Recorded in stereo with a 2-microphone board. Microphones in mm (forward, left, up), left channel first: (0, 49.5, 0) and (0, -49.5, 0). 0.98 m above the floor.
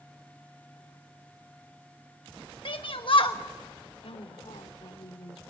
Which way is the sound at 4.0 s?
80° left.